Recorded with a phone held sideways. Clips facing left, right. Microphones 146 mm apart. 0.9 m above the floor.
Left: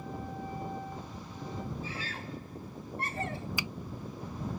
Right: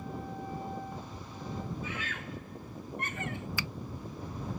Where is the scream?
35° left (ahead or behind).